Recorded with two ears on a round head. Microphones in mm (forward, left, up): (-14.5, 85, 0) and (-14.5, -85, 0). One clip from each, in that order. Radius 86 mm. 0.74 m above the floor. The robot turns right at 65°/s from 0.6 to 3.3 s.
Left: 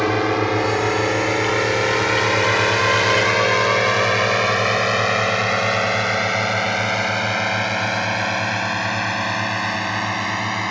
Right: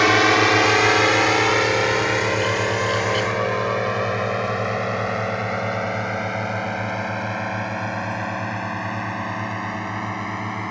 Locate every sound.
0.0 s a drone: 55° right (ahead or behind); by 10.7 s 70° left (ahead or behind)